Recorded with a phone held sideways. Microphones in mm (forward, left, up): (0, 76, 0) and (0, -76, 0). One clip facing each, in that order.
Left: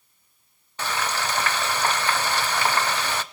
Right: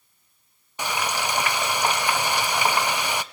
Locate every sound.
0.8 s frying: 15° right (ahead or behind), 0.7 m